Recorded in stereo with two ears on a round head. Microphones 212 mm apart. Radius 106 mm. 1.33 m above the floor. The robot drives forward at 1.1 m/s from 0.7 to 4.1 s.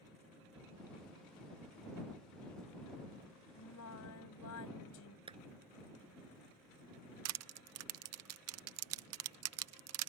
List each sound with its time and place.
3.6 s singing: 70° left (ahead or behind); by 5.2 s 75° left (ahead or behind)
5.3 s a clap: 25° right (ahead or behind)
7.2 s crushing: 70° right (ahead or behind)